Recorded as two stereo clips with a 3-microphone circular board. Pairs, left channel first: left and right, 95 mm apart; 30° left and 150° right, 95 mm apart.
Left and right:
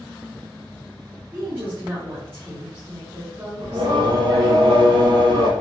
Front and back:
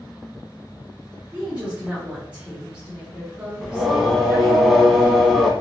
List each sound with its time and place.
1.3 s a woman speaking: 105° right, 1.4 m
3.6 s singing: 60° right, 0.7 m